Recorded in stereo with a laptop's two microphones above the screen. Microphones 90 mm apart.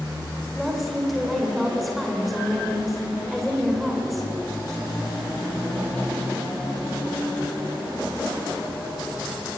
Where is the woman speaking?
Centre (ahead or behind), 3.5 m.